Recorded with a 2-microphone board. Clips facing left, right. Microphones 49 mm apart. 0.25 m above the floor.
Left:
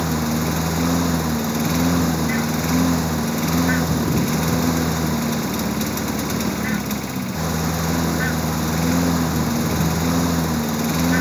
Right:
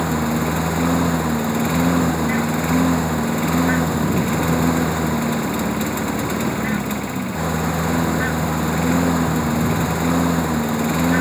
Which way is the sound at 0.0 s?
10° right (ahead or behind).